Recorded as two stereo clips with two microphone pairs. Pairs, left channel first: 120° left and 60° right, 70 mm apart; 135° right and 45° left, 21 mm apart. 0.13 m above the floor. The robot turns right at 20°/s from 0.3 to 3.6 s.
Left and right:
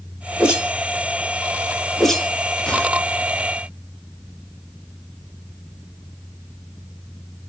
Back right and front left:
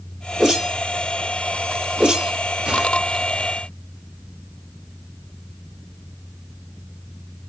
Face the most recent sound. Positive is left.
turn(degrees=65)